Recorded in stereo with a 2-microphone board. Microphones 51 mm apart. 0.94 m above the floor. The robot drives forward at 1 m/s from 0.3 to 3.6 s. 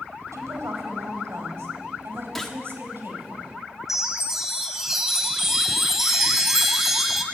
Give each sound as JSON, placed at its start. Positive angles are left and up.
{"t": 0.3, "sound": "a woman speaking", "side_deg": -75, "distance_m": 4.5}
{"t": 2.4, "sound": "a gunshot", "side_deg": 5, "distance_m": 1.5}
{"t": 3.9, "sound": "a chime", "side_deg": -5, "distance_m": 2.5}